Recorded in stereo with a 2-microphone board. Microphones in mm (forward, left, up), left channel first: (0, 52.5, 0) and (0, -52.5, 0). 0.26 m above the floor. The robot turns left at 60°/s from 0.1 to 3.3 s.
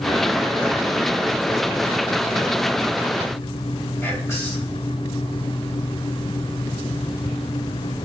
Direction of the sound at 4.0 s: 25° left (ahead or behind).